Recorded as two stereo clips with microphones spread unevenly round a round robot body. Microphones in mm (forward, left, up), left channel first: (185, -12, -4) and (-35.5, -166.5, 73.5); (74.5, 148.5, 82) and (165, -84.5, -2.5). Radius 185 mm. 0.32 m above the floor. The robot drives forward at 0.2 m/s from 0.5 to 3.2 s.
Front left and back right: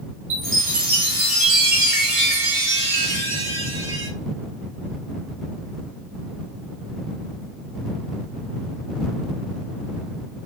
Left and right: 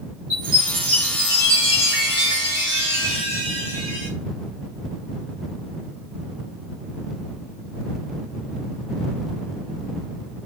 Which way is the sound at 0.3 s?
130° right.